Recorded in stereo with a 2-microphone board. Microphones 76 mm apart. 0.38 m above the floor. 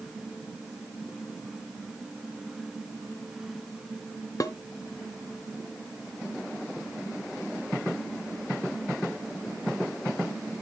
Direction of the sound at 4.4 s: 50° left (ahead or behind).